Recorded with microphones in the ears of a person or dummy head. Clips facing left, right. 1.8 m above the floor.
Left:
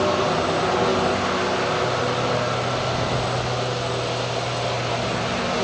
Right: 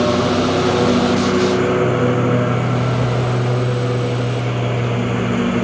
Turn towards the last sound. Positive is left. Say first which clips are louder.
# right 5 dB
turn(degrees=-45)  # may be behind; listen again after turning